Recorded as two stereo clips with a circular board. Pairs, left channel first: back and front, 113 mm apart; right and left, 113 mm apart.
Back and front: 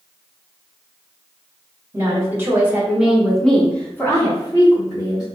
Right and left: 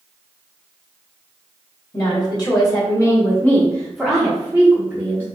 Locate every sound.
1.9 s a woman speaking: 55° right, 1.5 m; by 5.2 s 150° left, 1.4 m